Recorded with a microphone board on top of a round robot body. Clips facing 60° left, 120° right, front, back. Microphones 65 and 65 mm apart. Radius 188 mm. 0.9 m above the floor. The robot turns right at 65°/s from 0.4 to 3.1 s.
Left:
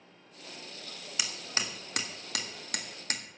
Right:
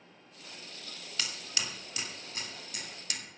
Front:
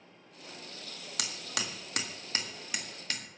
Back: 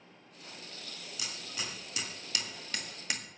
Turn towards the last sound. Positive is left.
turn(degrees=105)